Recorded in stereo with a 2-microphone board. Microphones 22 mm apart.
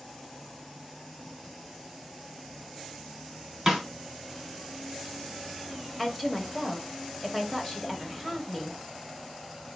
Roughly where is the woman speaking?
Centre.